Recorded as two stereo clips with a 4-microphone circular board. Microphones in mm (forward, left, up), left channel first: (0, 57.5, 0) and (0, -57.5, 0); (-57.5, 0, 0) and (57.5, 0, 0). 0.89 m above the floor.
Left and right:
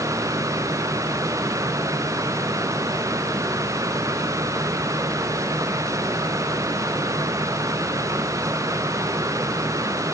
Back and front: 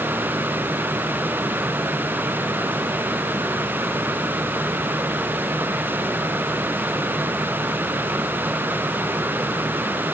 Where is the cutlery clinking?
No cutlery clinking in this recording.